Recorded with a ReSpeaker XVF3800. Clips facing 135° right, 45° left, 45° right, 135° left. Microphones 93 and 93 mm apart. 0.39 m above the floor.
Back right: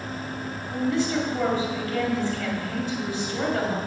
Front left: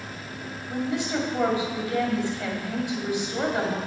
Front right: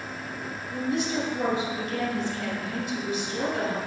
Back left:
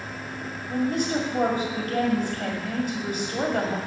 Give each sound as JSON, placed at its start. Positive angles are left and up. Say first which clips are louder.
{"t": 0.7, "sound": "a woman speaking", "louder": "back right 3 dB, back left 3 dB", "azimuth_deg": 115, "distance_m": 1.9}